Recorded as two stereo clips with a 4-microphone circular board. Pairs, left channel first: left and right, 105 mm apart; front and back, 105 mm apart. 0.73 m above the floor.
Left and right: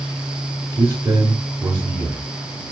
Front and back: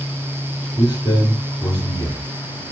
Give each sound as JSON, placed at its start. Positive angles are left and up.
{"t": 0.8, "sound": "a man speaking", "azimuth_deg": -30, "distance_m": 1.9}